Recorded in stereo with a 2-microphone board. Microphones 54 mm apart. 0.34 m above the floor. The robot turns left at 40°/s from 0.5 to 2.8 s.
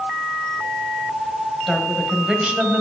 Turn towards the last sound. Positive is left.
turn(degrees=-45)